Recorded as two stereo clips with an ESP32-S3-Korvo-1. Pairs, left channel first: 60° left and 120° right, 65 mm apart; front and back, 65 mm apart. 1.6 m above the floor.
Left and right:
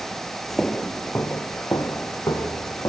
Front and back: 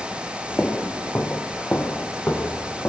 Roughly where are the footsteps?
Ahead.